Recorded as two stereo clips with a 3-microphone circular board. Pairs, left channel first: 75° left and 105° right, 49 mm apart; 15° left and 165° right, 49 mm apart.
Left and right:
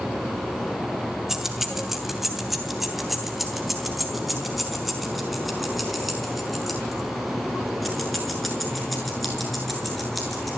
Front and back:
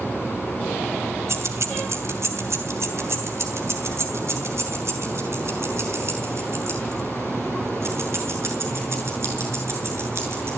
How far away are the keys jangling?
About 2.5 m.